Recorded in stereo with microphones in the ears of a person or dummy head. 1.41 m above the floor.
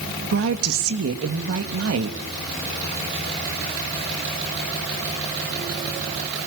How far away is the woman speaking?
About 2.5 m.